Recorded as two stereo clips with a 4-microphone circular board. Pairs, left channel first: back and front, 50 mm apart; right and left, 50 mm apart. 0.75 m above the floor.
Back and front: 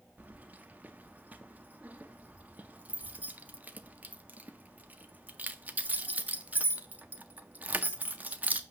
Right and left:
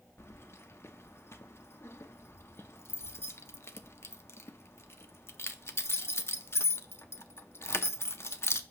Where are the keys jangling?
55° right, 0.6 m.